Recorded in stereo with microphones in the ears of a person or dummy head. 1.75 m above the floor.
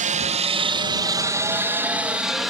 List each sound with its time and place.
0.0 s a helicopter: 35° right (ahead or behind); by 2.5 s centre (ahead or behind)